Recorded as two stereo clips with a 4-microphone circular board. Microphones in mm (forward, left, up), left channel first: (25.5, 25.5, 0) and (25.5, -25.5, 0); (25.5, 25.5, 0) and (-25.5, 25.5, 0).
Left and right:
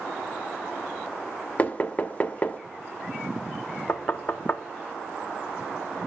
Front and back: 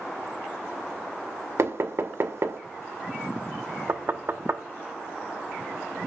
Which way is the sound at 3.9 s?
140° left.